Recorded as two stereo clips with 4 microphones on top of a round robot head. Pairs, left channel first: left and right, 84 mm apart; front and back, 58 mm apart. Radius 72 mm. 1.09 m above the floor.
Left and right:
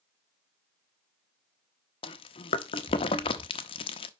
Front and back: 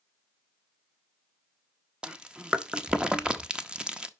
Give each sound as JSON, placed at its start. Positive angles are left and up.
{"t": 2.0, "sound": "chewing", "azimuth_deg": 105, "distance_m": 0.7}